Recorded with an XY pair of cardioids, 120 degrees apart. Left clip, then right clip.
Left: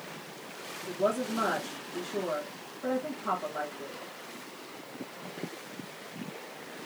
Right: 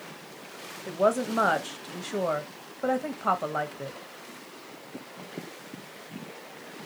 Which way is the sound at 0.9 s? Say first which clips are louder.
Right 5 dB; 65° right.